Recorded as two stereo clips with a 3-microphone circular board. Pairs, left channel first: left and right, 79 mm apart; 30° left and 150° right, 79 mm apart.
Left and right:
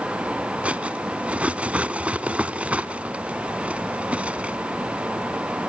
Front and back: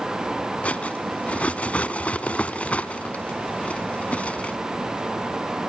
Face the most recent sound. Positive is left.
turn(degrees=-30)